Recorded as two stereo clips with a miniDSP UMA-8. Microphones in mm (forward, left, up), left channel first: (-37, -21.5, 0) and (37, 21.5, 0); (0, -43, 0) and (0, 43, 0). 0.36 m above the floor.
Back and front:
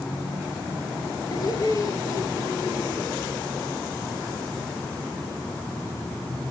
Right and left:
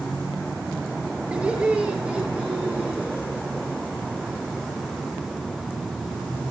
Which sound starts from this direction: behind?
Laughter, at 1.3 s.